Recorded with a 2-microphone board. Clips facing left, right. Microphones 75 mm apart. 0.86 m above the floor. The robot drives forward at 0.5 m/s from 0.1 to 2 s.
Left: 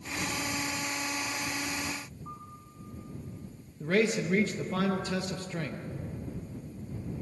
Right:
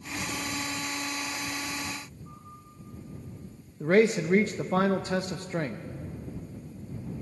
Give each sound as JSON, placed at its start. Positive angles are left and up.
{"t": 2.2, "sound": "a piano", "side_deg": 45, "distance_m": 4.0}
{"t": 3.8, "sound": "a man speaking", "side_deg": -35, "distance_m": 0.7}